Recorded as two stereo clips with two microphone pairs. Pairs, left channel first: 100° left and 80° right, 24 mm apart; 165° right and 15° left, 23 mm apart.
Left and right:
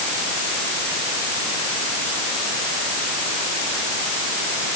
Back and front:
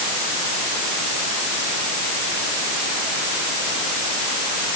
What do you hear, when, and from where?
Only background noise.